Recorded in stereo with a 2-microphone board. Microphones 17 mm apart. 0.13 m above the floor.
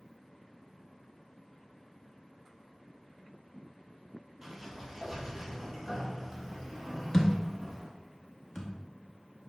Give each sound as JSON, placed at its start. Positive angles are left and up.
{"t": 4.4, "sound": "a sliding door", "side_deg": -20, "distance_m": 1.9}
{"t": 7.1, "sound": "a thud", "side_deg": 25, "distance_m": 0.9}